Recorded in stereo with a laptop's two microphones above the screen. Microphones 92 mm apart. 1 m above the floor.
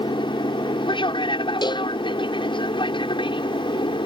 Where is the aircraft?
60° left (ahead or behind).